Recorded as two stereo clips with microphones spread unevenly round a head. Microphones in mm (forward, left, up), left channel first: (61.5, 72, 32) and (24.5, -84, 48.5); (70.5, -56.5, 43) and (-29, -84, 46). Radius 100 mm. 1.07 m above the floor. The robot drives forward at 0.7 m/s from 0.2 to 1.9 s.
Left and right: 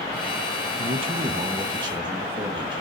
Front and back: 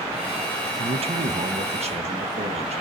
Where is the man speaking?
155° right, 0.7 m; by 2.8 s 170° right, 1.4 m.